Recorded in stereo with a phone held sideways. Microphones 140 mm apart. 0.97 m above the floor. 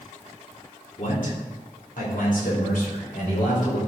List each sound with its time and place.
1.0 s a man speaking: 65° left (ahead or behind), 3 m; by 3.8 s 70° left (ahead or behind), 5 m